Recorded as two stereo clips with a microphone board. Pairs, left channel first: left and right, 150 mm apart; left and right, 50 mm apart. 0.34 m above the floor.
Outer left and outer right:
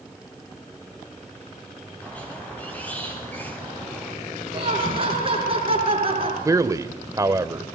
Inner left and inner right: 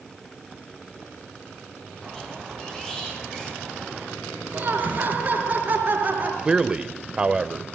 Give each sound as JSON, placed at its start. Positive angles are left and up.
{"t": 2.0, "sound": "a squeak", "side_deg": 10, "distance_m": 4.5}
{"t": 4.5, "sound": "laughter", "side_deg": -35, "distance_m": 4.5}
{"t": 6.5, "sound": "a man speaking", "side_deg": -20, "distance_m": 0.9}